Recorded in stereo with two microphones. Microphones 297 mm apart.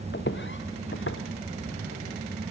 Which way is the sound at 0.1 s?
35° left (ahead or behind).